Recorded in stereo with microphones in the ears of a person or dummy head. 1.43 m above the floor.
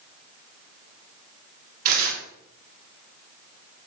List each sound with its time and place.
1.9 s tearing paper: 50° right (ahead or behind), 1.8 m